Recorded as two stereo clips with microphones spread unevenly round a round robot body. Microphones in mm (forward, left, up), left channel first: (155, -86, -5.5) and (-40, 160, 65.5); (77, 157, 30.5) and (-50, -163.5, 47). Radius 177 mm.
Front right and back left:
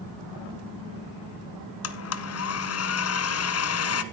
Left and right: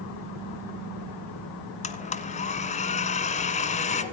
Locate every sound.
1.8 s a blender: 5° right, 1.2 m